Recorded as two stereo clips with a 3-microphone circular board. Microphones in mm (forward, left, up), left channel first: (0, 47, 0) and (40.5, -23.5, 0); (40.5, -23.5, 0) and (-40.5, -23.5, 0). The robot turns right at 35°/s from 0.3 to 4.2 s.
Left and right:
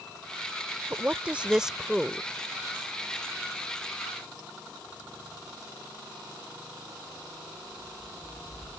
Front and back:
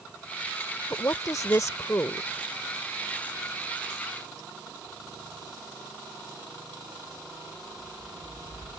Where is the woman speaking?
10° right; by 2.3 s 40° left.